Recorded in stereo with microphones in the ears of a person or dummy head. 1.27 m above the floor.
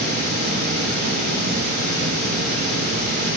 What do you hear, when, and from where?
0.0 s running water: 55° right (ahead or behind), 6 m